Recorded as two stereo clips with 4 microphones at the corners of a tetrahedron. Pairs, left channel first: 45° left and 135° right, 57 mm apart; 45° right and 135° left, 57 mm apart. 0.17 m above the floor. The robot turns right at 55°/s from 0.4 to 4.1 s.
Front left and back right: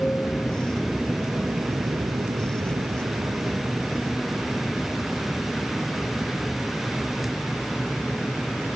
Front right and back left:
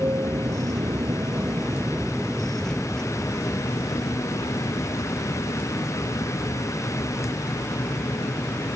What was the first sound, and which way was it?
An aircraft, 115° left.